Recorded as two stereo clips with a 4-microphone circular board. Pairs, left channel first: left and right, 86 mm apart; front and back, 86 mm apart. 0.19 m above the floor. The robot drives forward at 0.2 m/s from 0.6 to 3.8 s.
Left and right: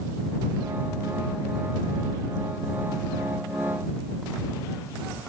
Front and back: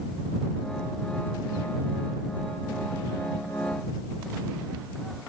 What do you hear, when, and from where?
Only background noise.